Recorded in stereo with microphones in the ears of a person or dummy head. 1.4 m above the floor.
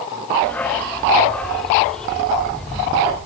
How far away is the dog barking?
About 0.9 m.